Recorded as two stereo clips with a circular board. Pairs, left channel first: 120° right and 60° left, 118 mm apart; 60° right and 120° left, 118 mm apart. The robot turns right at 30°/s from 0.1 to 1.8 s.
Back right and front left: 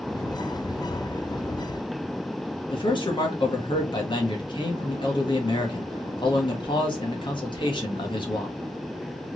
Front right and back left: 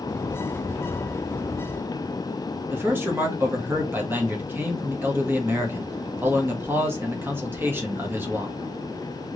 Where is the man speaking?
170° right, 1.5 m.